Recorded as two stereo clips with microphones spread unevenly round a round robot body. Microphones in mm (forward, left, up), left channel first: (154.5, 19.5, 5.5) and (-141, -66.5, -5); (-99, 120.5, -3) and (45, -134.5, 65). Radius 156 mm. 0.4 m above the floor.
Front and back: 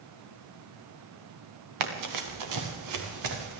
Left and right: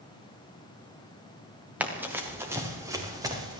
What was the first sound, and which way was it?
Running footsteps, 145° right.